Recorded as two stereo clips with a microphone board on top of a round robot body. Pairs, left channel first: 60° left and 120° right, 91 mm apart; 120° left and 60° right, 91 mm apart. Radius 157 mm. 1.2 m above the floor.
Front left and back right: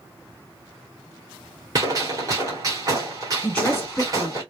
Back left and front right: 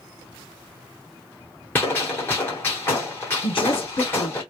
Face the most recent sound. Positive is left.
turn(degrees=140)